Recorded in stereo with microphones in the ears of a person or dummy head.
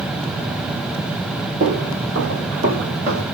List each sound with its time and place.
1.6 s footsteps: 45° right (ahead or behind), 1.7 m